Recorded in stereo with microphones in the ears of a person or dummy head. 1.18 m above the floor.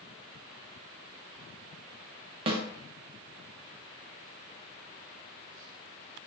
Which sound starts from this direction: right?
A snare drum, at 2.5 s.